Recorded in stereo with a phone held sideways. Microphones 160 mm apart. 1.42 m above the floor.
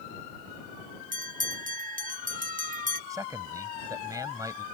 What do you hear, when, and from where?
1.1 s a bell: 55° right (ahead or behind)
3.1 s a man speaking: 20° right (ahead or behind)